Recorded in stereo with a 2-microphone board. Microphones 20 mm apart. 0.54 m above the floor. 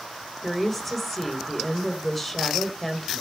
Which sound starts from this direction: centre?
A woman speaking, at 0.4 s.